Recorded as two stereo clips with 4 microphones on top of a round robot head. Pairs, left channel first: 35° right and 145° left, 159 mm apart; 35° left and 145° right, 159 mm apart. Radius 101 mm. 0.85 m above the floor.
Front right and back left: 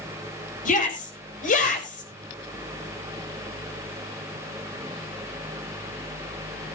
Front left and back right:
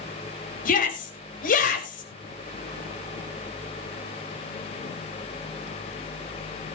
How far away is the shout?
About 4.5 m.